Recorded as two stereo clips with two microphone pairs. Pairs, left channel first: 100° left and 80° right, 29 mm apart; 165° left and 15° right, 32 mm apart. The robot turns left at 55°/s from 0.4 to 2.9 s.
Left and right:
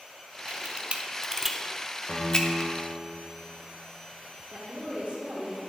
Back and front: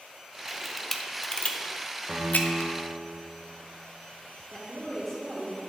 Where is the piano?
55° left, 1.2 m; by 3.0 s 10° left, 1.2 m.